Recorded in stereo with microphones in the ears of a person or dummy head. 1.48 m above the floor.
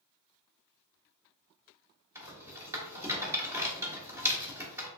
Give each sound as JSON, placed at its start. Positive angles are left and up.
{"t": 2.1, "sound": "a rattle", "side_deg": -15, "distance_m": 1.1}